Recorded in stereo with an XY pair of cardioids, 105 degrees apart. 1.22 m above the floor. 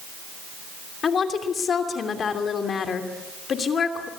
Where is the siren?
I don't hear a siren.